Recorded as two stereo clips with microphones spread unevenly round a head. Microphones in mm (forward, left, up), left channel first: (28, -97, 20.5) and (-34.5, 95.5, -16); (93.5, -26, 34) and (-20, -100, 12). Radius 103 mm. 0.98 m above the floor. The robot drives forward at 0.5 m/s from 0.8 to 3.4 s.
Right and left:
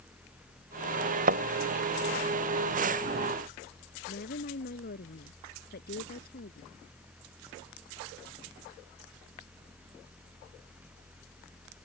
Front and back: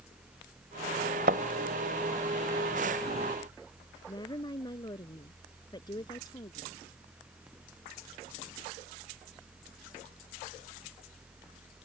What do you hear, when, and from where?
1.3 s a thud: 160° left
4.1 s a woman speaking: 25° right